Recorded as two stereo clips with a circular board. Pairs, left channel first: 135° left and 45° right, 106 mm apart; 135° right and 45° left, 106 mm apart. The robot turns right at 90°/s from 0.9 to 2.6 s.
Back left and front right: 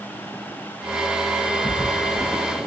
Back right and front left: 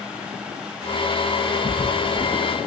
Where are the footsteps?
140° left, 8 m; by 2.2 s 165° right, 8 m.